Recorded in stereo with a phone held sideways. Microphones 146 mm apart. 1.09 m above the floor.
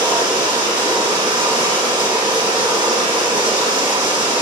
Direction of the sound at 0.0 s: 30° right (ahead or behind).